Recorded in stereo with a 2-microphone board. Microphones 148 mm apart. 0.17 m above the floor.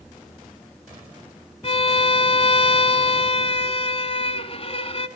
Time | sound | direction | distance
1.6 | a violin | 40° left (ahead or behind) | 1.1 m